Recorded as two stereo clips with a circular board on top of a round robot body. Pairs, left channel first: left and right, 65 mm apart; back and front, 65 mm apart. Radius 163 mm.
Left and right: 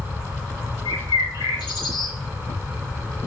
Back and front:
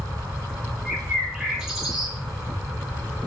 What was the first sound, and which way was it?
A bird, 80° left.